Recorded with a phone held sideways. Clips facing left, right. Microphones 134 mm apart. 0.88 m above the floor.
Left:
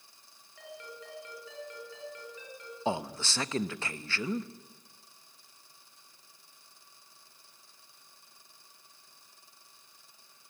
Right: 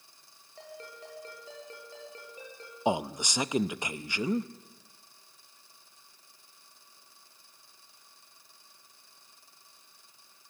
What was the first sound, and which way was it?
A ringtone, 35° right (ahead or behind).